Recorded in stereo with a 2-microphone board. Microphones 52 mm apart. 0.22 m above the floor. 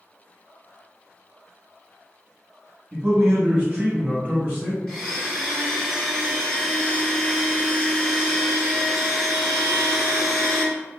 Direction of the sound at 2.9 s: 25° right (ahead or behind).